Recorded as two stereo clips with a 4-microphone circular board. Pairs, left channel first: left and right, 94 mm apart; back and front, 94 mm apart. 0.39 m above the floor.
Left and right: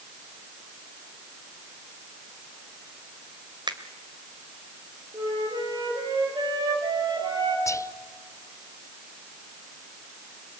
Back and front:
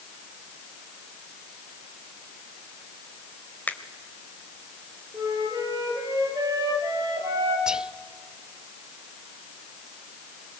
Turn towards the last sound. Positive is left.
turn(degrees=75)